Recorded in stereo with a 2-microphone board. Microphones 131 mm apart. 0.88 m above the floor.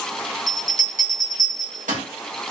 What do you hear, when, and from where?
0.5 s a bell: 80° right, 0.8 m